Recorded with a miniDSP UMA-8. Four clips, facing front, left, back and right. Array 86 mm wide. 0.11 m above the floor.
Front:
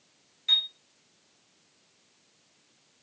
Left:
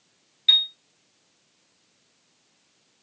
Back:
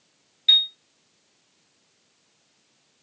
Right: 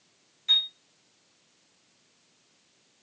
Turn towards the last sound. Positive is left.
turn(degrees=125)